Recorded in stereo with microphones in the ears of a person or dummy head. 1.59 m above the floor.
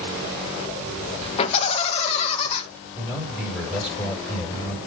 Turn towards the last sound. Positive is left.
turn(degrees=-5)  # may be behind; listen again after turning